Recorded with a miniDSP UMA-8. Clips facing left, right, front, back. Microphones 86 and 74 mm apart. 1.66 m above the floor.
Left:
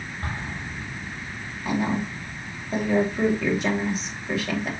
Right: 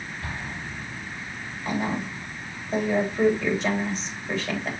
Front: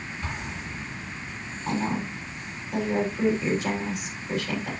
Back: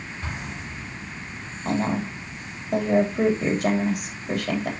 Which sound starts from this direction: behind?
A woman speaking, at 1.6 s.